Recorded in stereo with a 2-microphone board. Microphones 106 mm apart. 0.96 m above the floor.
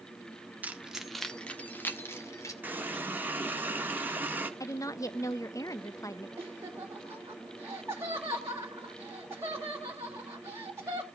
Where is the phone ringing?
I don't hear a phone ringing.